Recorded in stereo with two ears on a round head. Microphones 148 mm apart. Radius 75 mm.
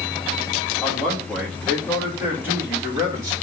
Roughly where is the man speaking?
Centre.